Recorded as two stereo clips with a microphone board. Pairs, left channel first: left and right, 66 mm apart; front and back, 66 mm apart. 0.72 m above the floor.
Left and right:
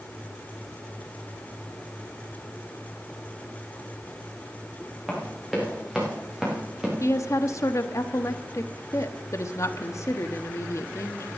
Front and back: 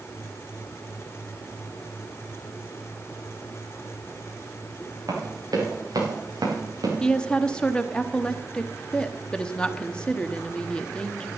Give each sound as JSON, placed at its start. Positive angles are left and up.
{"t": 5.1, "sound": "running footsteps", "azimuth_deg": 180, "distance_m": 7.0}
{"t": 7.0, "sound": "a woman speaking", "azimuth_deg": 70, "distance_m": 1.0}